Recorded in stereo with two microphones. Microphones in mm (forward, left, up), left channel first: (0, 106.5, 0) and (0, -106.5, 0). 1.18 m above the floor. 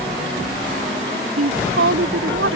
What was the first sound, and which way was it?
A woman speaking, 85° right.